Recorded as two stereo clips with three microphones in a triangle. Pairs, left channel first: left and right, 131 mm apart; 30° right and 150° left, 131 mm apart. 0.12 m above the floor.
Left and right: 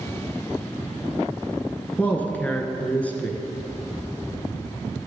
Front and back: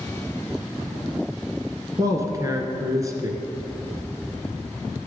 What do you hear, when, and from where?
2.0 s a man speaking: 155° left, 1.6 m